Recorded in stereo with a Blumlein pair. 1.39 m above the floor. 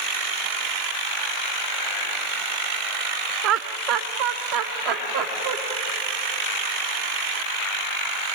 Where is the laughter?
35° right, 0.7 m; by 5.6 s 45° right, 2.5 m.